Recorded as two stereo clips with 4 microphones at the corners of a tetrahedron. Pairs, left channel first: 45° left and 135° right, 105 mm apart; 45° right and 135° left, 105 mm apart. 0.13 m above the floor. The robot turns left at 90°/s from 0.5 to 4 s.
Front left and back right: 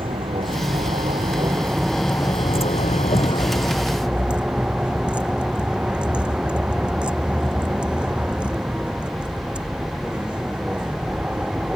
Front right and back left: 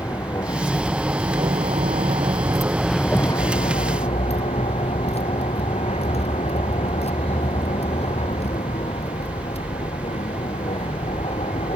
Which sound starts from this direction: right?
A vehicle, at 0.0 s.